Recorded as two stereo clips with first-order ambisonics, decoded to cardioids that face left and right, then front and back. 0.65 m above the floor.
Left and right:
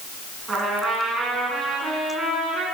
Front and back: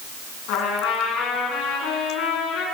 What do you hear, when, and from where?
0.5 s a trumpet: 15° right, 4 m